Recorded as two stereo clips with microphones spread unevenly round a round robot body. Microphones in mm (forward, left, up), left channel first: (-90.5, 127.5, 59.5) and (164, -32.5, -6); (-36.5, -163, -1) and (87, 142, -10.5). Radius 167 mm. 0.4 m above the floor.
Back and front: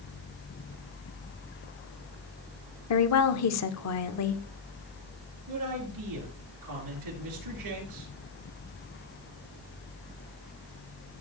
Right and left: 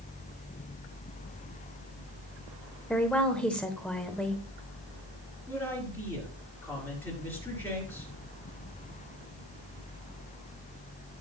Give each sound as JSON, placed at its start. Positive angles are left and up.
{"t": 2.9, "sound": "a woman speaking", "azimuth_deg": 160, "distance_m": 0.9}
{"t": 5.5, "sound": "a man speaking", "azimuth_deg": -30, "distance_m": 5.0}